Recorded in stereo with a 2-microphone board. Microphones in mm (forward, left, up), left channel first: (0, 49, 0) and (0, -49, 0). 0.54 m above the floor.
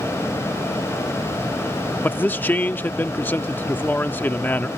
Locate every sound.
2.0 s a man speaking: 20° left (ahead or behind)